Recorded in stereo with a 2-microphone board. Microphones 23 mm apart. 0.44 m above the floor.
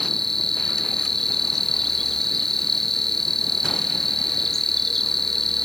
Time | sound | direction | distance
0.0 | an insect | 15° left (ahead or behind) | ?